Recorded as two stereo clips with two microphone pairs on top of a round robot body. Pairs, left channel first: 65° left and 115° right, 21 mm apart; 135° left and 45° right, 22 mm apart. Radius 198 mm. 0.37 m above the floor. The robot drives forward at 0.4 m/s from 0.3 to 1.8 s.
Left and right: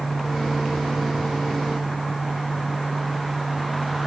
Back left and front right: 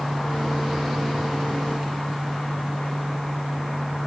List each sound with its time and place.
Only background noise.